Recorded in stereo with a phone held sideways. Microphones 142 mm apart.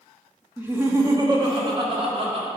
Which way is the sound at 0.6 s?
15° right (ahead or behind).